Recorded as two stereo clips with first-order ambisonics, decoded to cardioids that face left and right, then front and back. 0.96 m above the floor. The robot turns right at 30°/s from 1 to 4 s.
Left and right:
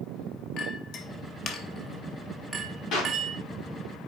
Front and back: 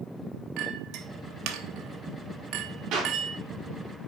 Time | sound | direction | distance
0.6 | a clink | 140° left | 1.0 m
2.9 | a clap | 135° left | 2.5 m